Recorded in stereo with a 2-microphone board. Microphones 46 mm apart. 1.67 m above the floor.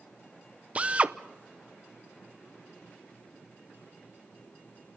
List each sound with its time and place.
0.8 s a drill: 30° right (ahead or behind), 0.7 m